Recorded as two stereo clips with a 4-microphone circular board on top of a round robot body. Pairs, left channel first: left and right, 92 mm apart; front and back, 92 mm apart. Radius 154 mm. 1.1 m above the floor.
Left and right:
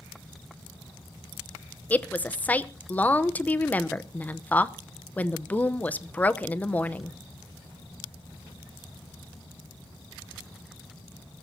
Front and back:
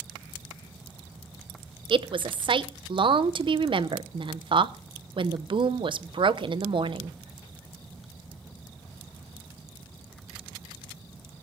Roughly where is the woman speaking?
Behind.